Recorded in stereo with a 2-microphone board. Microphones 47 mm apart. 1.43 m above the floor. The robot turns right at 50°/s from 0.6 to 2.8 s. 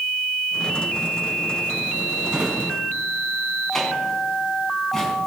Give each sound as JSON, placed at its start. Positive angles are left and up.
{"t": 2.3, "sound": "a drawer", "side_deg": -15, "distance_m": 4.0}